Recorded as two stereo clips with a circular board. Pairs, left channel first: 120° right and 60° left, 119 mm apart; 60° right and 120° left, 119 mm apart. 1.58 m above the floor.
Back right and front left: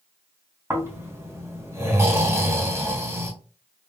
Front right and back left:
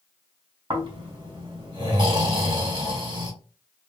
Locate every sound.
0.7 s snoring: 110° left, 1.5 m